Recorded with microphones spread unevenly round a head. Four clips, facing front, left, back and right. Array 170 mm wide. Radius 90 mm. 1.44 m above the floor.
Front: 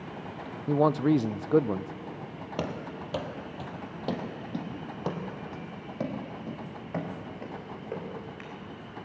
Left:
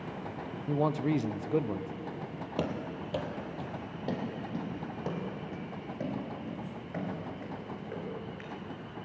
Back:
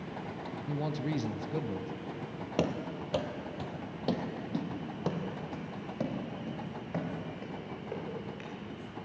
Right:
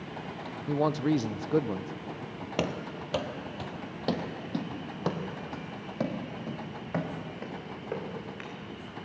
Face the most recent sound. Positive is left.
turn(degrees=-50)